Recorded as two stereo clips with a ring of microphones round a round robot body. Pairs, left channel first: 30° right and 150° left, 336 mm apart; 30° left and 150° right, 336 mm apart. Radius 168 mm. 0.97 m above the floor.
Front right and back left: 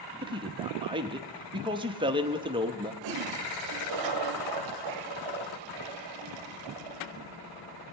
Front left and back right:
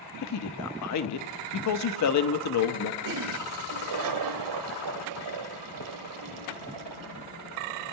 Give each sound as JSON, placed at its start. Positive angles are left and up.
{"t": 0.2, "sound": "a man speaking", "azimuth_deg": 75, "distance_m": 0.9}
{"t": 3.0, "sound": "a toilet flushing", "azimuth_deg": 175, "distance_m": 1.1}